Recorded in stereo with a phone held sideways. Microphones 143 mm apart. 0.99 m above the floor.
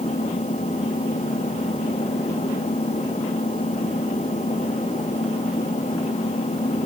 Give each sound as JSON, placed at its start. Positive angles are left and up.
{"t": 0.0, "sound": "an engine running", "side_deg": 55}